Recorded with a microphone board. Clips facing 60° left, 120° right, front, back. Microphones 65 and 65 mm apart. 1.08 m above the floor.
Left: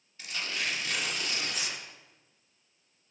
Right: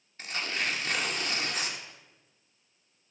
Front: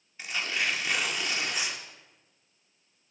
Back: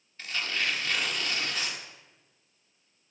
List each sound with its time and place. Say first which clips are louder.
0.2 s tearing paper: right 2 dB, front 1 dB; 75° right, 1.3 m